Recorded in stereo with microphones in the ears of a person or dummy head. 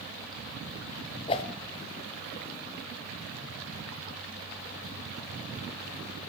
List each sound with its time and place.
1.3 s a whoosh: 25° left (ahead or behind), 0.7 m